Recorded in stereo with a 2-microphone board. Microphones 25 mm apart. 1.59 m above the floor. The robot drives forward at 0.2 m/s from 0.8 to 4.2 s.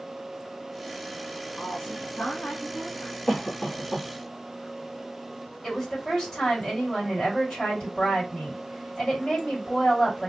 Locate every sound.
1.6 s a woman speaking: 75° left (ahead or behind), 1.6 m; by 3.2 s 70° left (ahead or behind), 1.7 m
3.3 s a cough: 25° left (ahead or behind), 1.1 m; by 4.1 s 20° left (ahead or behind), 1.2 m
5.6 s a woman speaking: 20° left (ahead or behind), 1.8 m